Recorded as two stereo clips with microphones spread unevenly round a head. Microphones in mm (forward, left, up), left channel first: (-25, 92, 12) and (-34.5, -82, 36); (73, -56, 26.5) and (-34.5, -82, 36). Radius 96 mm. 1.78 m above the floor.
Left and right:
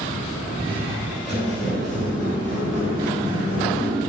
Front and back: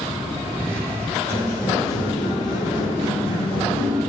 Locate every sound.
0.6 s footsteps: 70° right, 1.8 m; by 4.0 s 15° left, 2.5 m